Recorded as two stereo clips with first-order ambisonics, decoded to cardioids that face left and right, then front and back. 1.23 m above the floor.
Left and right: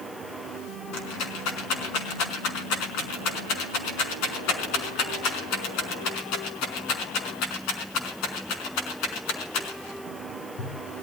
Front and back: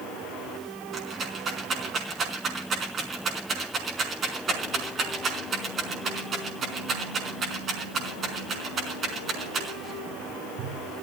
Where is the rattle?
115° left, 4.5 m.